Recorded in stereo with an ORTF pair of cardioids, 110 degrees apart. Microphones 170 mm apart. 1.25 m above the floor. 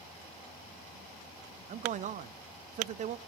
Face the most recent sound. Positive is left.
turn(degrees=-45)